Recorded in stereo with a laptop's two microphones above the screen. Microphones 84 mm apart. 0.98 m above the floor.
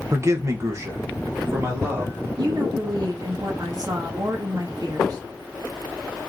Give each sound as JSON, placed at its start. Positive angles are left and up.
{"t": 0.1, "sound": "a man speaking", "side_deg": -35, "distance_m": 0.5}
{"t": 2.4, "sound": "a woman speaking", "side_deg": -50, "distance_m": 0.9}